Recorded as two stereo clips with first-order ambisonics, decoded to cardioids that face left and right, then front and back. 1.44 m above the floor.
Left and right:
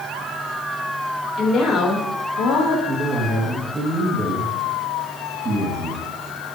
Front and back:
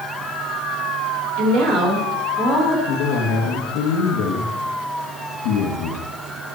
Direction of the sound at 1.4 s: 150° left.